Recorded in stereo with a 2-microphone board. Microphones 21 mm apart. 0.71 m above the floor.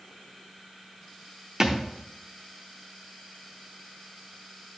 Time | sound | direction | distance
1.6 | a thud | 25° right (ahead or behind) | 0.7 m